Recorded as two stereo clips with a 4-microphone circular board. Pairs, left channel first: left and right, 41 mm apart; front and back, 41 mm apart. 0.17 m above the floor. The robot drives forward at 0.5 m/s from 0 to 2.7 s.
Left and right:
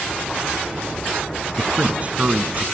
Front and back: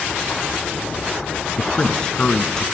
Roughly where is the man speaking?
Ahead right.